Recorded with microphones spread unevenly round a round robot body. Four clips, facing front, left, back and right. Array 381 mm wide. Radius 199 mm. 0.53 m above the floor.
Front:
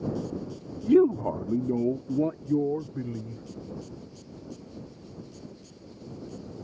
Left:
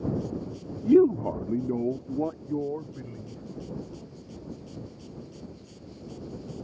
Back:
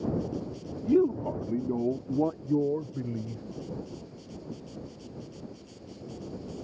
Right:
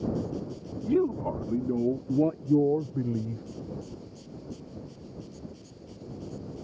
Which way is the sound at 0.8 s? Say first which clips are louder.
Left 7 dB, front 4 dB; 60° left.